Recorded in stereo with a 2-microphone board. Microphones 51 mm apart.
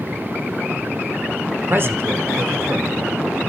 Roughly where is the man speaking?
Right.